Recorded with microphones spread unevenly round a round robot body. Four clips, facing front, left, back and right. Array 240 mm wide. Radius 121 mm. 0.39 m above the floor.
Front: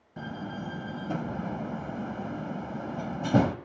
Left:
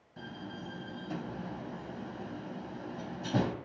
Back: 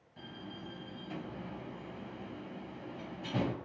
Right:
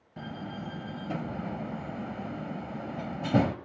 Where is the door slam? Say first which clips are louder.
Right 5 dB, front 10 dB; 25° right, 1.5 m.